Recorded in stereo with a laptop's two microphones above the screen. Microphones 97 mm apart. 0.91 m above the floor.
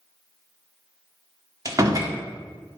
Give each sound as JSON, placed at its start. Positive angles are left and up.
{"t": 1.6, "sound": "a door slam", "side_deg": -35, "distance_m": 1.8}